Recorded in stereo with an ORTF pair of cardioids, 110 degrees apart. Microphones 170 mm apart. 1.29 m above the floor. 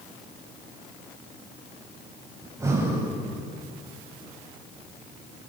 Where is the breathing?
20° right, 8.5 m.